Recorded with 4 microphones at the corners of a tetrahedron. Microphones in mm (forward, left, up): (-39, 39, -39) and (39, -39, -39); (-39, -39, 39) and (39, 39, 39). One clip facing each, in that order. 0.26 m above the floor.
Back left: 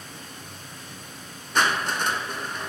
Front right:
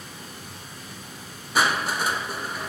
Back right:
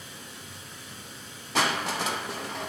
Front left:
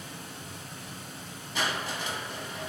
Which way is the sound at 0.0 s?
35° left.